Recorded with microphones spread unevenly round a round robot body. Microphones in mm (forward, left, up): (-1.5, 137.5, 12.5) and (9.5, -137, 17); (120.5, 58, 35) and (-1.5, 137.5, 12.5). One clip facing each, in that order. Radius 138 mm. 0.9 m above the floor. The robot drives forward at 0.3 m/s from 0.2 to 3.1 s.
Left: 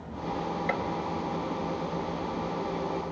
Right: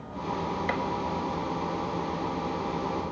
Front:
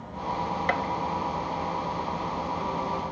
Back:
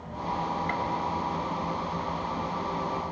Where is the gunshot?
20° right, 1.6 m.